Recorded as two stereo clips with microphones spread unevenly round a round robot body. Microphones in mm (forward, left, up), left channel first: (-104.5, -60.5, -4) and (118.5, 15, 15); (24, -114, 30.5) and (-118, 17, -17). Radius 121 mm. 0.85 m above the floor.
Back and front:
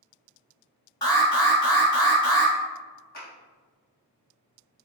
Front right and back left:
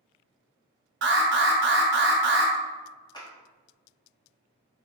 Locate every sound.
1.0 s an alarm: 125° left, 1.2 m
3.1 s a clap: 115° right, 1.5 m